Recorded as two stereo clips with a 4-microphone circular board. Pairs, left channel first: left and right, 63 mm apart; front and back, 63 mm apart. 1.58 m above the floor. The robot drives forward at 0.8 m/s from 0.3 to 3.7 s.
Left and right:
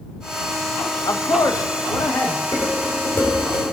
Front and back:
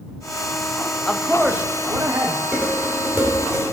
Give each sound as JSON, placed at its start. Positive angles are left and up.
{"t": 1.1, "sound": "a man speaking", "azimuth_deg": 75, "distance_m": 0.7}
{"t": 2.5, "sound": "dishes clattering", "azimuth_deg": 110, "distance_m": 3.0}